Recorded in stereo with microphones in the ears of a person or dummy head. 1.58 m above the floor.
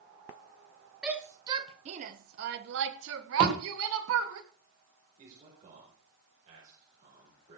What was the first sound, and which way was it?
A shout, 10° right (ahead or behind).